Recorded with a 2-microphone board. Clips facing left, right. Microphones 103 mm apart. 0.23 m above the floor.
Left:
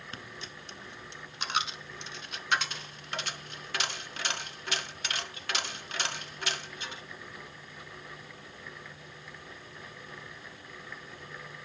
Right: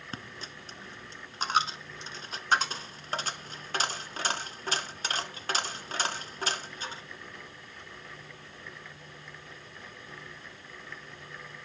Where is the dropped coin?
40° right (ahead or behind), 0.9 m.